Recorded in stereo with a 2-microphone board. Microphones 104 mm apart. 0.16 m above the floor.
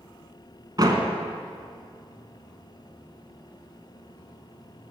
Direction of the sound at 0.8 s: 40° right (ahead or behind).